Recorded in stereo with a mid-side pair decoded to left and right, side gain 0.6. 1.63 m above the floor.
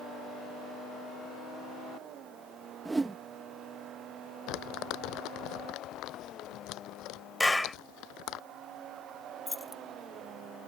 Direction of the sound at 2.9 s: 15° right.